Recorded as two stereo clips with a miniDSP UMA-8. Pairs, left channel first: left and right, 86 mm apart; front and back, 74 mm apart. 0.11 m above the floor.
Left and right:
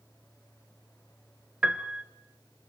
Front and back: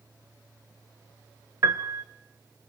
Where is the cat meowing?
I don't hear a cat meowing.